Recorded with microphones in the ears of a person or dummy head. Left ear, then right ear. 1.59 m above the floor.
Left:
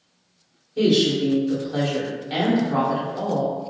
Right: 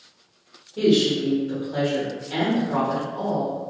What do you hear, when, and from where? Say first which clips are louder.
0.8 s a woman speaking: left 1 dB; 10° left (ahead or behind), 1.2 m